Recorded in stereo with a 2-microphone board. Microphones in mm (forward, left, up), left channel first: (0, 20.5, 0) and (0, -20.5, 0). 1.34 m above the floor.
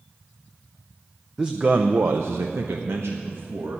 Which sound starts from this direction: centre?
A man speaking, at 1.4 s.